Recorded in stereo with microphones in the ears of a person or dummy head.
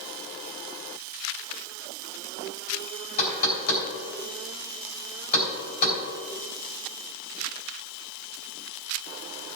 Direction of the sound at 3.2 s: 50° left (ahead or behind).